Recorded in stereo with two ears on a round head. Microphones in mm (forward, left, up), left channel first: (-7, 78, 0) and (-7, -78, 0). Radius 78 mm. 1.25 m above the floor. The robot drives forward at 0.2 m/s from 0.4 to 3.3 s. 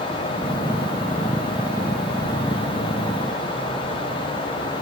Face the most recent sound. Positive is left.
No sound to turn to.